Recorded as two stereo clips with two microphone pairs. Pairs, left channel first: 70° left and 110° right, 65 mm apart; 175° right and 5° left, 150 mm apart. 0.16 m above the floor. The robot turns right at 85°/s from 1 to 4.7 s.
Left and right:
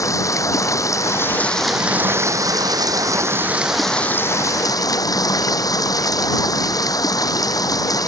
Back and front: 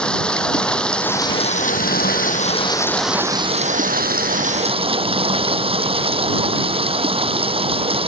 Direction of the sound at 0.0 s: 100° left.